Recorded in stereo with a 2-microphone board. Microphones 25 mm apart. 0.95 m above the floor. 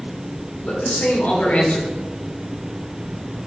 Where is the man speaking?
70° left (ahead or behind), 3.5 m.